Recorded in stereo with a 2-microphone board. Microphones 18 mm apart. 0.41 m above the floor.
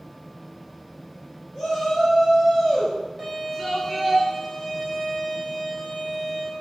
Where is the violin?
5° right (ahead or behind), 6.5 m.